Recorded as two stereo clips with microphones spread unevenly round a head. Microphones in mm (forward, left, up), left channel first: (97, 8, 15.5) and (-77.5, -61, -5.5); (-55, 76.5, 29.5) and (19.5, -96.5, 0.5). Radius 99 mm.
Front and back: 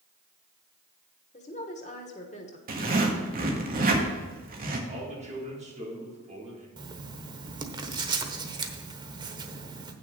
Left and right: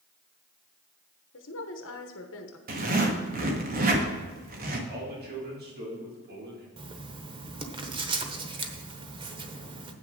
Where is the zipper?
110° right, 1.7 m.